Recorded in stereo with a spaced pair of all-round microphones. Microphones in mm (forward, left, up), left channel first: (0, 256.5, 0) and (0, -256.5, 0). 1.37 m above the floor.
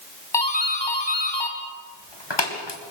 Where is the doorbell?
55° left (ahead or behind), 2 m.